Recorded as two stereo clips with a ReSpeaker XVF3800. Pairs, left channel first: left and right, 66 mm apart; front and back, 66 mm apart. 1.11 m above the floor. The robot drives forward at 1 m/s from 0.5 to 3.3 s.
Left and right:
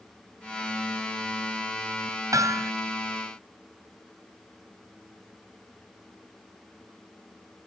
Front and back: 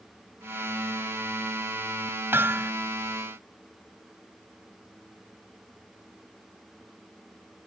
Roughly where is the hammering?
Behind right.